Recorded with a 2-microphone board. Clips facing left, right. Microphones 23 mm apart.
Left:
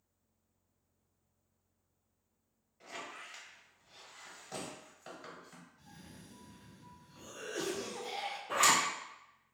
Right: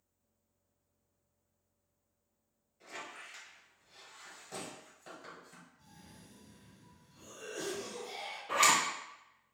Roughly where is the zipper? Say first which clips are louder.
Right 1 dB; right.